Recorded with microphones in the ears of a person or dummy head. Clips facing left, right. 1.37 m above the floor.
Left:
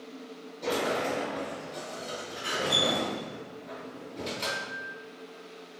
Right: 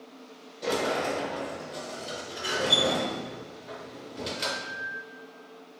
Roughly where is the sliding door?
Centre.